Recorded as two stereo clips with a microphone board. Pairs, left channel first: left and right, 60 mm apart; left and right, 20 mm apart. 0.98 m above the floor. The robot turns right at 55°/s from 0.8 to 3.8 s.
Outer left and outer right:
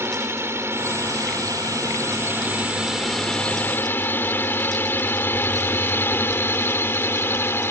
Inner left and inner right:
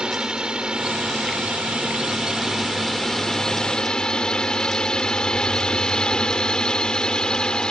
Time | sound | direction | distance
0.0 | a drone | 45° right (ahead or behind) | ?